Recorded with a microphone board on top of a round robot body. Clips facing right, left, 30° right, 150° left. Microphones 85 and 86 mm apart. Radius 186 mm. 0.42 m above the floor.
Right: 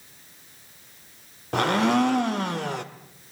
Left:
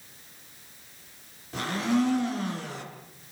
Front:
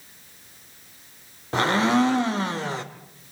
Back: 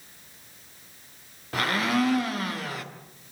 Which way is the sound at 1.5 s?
90° right.